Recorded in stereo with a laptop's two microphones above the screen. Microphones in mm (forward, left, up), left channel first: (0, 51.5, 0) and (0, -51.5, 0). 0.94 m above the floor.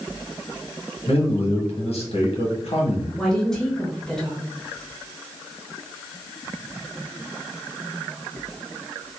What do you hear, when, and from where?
1.1 s a man speaking: 75° left (ahead or behind), 1.0 m
3.2 s a woman speaking: 5° left (ahead or behind), 0.8 m